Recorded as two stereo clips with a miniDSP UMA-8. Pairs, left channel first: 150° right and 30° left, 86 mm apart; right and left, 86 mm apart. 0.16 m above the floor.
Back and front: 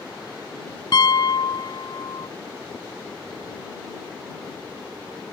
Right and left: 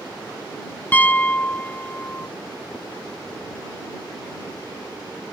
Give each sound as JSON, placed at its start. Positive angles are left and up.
{"t": 0.9, "sound": "a piano", "azimuth_deg": -155}